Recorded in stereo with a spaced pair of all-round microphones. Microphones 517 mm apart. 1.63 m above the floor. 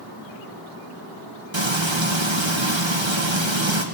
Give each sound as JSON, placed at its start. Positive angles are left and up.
{"t": 1.5, "sound": "frying", "side_deg": -55, "distance_m": 2.0}